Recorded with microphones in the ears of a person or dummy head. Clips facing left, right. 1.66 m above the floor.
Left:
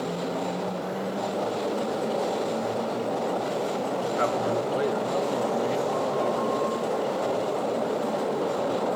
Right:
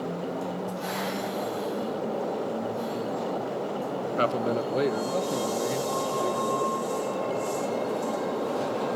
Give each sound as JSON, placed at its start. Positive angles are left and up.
{"t": 4.2, "sound": "a man speaking", "side_deg": -50, "distance_m": 0.6}